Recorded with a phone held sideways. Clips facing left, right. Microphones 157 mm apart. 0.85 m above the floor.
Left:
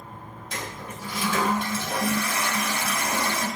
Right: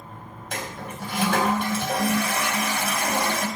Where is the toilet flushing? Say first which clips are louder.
Right 3 dB; 75° right (ahead or behind), 3.5 m.